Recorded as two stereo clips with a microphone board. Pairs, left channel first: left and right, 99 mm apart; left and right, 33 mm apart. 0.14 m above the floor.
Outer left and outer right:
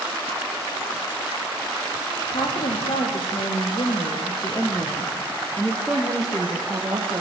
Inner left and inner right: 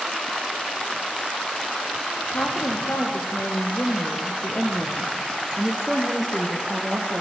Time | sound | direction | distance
2.2 | a woman speaking | 65° left (ahead or behind) | 5 m